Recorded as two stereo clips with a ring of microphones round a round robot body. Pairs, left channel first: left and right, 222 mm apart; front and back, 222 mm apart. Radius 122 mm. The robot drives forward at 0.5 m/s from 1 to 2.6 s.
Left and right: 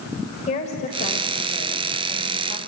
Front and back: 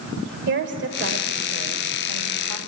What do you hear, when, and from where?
0.5 s a woman speaking: 150° left, 1.6 m; by 2.6 s 160° left, 2 m